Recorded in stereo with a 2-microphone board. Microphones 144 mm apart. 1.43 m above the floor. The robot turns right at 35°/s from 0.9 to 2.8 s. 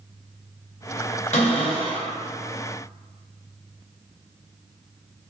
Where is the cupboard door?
60° left (ahead or behind), 1.0 m; by 2.1 s 30° left (ahead or behind), 1.0 m.